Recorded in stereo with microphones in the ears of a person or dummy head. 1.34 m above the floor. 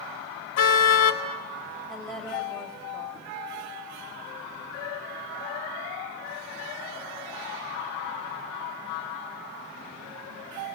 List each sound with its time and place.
0.6 s a car horn: 75° left (ahead or behind), 4 m
1.9 s a woman speaking: 5° left (ahead or behind), 6.5 m